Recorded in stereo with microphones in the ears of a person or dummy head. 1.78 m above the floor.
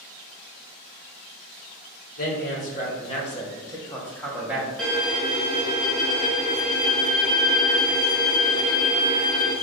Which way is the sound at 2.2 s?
45° left (ahead or behind).